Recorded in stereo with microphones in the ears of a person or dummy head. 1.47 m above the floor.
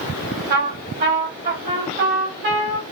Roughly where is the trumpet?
Right.